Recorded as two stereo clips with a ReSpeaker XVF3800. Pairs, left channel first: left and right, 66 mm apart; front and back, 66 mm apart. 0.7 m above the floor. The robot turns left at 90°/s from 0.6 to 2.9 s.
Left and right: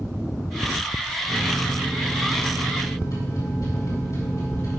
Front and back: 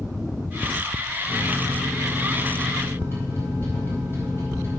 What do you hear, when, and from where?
1.3 s a microwave: 155° right, 4 m; by 4.8 s 55° left, 4 m